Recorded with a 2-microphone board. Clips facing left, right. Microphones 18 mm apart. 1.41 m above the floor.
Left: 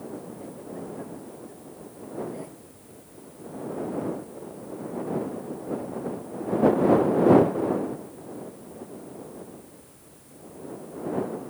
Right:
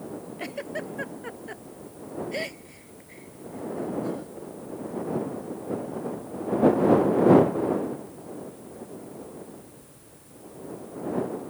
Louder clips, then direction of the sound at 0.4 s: Right 4 dB; 75° right (ahead or behind).